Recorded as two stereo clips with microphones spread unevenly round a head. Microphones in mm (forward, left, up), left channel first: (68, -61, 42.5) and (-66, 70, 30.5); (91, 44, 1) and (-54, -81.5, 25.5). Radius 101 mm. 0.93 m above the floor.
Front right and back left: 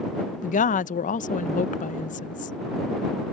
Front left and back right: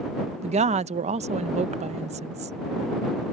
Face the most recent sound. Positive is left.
turn(degrees=-85)